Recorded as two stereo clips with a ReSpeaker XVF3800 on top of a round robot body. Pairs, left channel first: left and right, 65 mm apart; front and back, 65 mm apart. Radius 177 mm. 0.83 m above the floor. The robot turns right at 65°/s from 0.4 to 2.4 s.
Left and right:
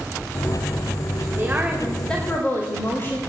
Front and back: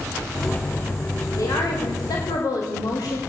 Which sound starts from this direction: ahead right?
A woman speaking, at 1.4 s.